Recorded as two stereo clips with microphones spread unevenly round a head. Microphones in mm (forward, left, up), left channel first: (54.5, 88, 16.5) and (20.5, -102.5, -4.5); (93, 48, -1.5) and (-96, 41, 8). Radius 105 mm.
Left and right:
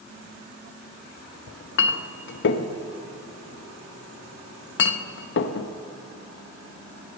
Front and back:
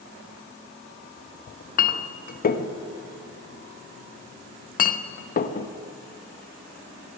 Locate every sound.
1.5 s a clink: 50° left, 0.6 m